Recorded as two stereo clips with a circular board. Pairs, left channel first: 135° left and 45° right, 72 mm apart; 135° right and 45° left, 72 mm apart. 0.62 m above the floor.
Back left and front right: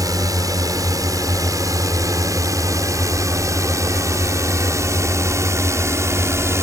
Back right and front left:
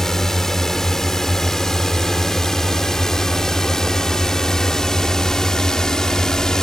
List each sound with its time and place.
0.0 s a drone: 50° right; by 6.6 s 55° right